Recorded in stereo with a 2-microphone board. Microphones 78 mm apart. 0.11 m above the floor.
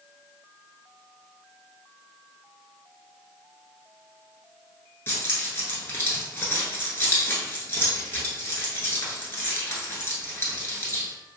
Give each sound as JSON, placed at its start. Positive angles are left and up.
{"t": 5.1, "sound": "keys jangling", "side_deg": 30, "distance_m": 0.9}